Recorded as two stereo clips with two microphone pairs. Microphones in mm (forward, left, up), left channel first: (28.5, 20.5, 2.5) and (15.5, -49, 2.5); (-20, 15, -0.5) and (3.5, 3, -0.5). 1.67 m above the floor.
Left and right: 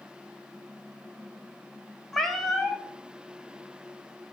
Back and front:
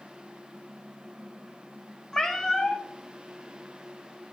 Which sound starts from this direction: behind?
A cat meowing, at 2.1 s.